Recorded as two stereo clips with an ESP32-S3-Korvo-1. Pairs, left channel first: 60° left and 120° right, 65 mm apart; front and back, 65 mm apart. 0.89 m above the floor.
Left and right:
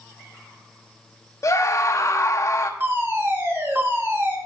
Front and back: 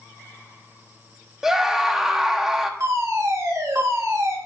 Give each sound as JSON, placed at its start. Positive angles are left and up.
{"t": 1.4, "sound": "a scream", "azimuth_deg": 100, "distance_m": 1.1}
{"t": 2.8, "sound": "a fire alarm", "azimuth_deg": -170, "distance_m": 2.5}